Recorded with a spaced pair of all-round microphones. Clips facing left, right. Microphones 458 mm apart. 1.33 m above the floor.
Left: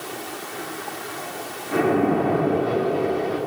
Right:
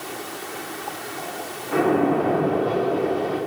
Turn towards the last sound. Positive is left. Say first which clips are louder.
# even
turn(degrees=40)  # may be behind; listen again after turning